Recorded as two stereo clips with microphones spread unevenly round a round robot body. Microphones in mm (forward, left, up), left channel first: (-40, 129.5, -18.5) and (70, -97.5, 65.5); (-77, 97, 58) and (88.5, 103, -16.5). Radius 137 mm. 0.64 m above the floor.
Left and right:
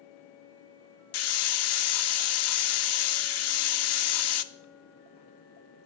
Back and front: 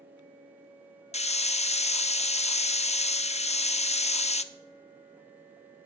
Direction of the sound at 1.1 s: 120° left.